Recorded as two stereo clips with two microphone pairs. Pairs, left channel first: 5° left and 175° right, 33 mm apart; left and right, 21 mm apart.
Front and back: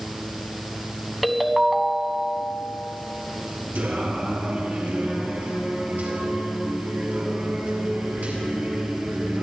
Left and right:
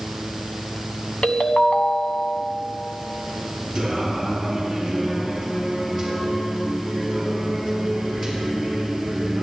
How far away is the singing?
About 6 m.